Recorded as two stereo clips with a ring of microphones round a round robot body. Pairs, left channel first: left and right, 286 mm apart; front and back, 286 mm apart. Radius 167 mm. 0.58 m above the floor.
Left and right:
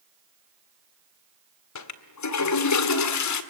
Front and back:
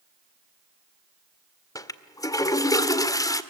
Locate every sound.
1.8 s a toilet flushing: 80° left, 1.8 m